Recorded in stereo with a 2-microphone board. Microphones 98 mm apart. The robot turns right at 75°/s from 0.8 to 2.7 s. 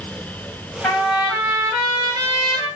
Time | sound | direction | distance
0.8 | a trumpet | 160° left | 1.2 m